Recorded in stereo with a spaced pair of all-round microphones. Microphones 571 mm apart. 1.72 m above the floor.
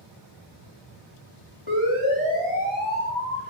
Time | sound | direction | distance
1.7 | a siren | 55° left (ahead or behind) | 4 m